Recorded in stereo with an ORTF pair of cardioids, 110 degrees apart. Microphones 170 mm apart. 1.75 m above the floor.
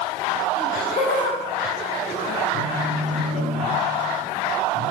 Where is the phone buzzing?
45° left, 3 m.